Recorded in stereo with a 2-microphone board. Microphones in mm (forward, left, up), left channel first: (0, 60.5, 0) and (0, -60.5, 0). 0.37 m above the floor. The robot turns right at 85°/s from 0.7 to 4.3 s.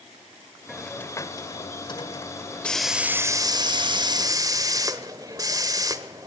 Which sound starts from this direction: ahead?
A hiss, at 0.7 s.